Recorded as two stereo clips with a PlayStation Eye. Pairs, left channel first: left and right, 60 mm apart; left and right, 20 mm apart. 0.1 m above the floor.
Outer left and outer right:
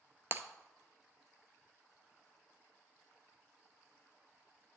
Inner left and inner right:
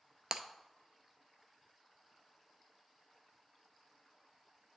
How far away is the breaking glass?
About 0.5 m.